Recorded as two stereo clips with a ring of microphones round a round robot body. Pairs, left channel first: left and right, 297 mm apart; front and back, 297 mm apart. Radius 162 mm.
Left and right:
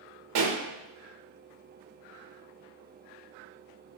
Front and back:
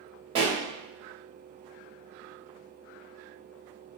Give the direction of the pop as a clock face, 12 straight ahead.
4 o'clock.